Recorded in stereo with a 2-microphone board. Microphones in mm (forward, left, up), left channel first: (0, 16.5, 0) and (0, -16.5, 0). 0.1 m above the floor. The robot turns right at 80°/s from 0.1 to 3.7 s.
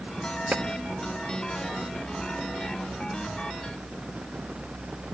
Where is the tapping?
50° right (ahead or behind), 0.6 m.